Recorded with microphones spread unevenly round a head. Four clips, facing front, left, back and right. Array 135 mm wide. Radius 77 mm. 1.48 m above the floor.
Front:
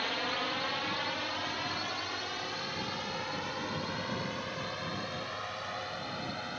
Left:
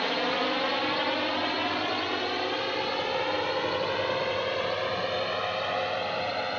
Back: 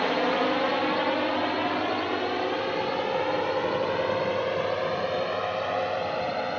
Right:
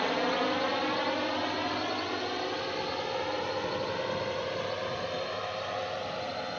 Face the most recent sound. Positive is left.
turn(degrees=165)